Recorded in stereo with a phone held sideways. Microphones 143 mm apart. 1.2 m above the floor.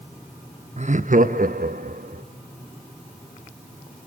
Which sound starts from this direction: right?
Laughter, at 0.8 s.